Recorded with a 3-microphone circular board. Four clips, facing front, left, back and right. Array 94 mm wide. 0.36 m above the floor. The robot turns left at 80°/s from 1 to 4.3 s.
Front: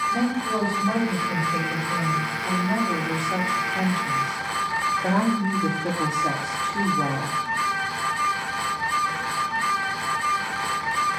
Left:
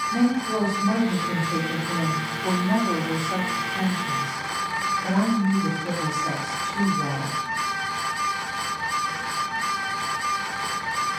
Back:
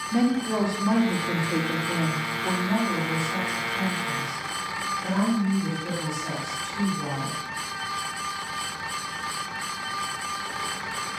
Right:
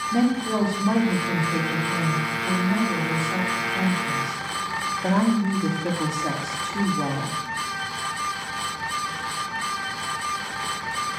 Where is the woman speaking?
130° right, 6.5 m; by 7.4 s 35° right, 6.5 m.